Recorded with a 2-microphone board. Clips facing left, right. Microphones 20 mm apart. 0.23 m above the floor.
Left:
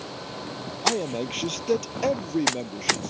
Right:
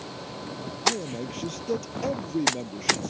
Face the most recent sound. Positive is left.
turn(degrees=15)  # may be behind; listen again after turning